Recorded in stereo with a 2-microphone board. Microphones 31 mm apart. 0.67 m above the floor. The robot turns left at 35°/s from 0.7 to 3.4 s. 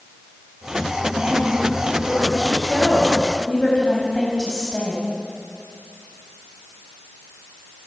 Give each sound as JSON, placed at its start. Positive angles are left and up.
{"t": 1.2, "sound": "a woman speaking", "azimuth_deg": -125, "distance_m": 4.0}